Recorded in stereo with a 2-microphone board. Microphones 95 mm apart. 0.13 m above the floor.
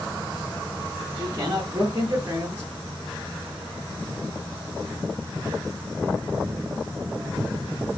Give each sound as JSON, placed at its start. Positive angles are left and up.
{"t": 1.2, "sound": "a man speaking", "side_deg": -25, "distance_m": 1.3}